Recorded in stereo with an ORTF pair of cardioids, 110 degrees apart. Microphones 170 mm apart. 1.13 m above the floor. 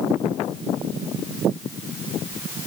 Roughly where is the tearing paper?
No tearing paper in this recording.